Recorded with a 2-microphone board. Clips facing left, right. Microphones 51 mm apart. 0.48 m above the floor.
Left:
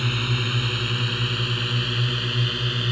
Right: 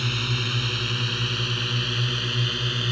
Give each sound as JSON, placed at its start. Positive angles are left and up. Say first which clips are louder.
{"t": 0.0, "sound": "a drone", "louder": "left 2 dB", "side_deg": 10}